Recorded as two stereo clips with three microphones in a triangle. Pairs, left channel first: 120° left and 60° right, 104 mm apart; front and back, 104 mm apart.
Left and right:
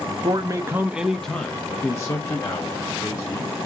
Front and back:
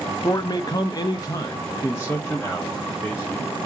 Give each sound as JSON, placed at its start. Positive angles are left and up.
{"t": 0.2, "sound": "a man speaking", "azimuth_deg": -40, "distance_m": 0.6}